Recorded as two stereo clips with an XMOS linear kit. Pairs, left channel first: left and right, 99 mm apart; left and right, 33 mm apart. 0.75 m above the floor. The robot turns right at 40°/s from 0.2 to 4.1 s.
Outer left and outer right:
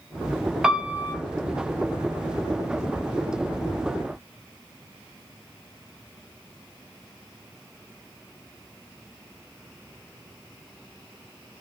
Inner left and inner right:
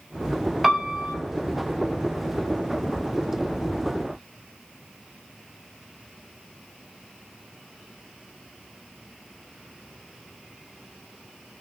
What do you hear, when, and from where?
0.6 s a piano: 5° right (ahead or behind), 0.5 m; by 1.1 s 25° right (ahead or behind), 0.5 m